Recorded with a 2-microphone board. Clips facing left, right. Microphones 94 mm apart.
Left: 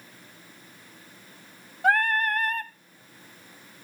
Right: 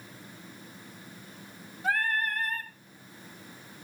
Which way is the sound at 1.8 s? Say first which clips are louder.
Left 6 dB; 60° left (ahead or behind).